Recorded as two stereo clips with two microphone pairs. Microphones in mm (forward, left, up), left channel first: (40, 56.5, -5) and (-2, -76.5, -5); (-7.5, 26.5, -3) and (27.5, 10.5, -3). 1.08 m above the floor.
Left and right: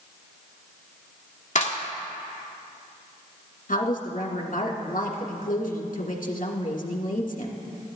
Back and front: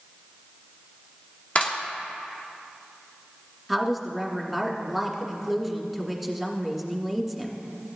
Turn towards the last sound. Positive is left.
turn(degrees=65)